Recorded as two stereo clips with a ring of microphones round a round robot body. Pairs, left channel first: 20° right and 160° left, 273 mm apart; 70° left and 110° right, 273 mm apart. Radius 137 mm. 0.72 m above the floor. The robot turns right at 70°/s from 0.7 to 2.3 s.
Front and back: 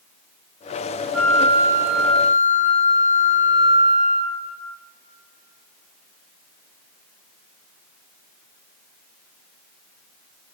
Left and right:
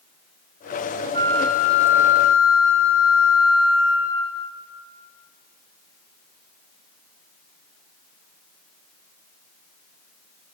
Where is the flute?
170° right, 1.9 m; by 4.4 s 90° right, 1.9 m.